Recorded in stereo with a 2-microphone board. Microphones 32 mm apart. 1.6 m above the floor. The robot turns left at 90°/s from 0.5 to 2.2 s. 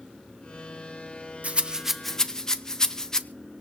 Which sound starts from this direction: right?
A rattle, at 1.4 s.